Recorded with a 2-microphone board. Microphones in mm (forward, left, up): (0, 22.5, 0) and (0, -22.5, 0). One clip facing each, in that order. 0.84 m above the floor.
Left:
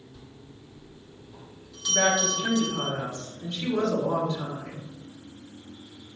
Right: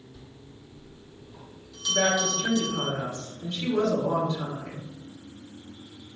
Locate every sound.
0.1 s a bell: 10° left (ahead or behind), 1.4 m
1.9 s a woman speaking: 15° left (ahead or behind), 1.6 m